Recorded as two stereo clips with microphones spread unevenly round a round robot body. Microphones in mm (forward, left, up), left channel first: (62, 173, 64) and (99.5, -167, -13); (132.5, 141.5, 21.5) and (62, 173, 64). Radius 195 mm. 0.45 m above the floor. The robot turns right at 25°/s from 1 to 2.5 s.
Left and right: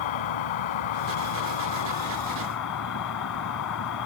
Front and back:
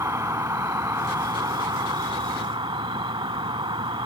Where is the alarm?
No alarm in this recording.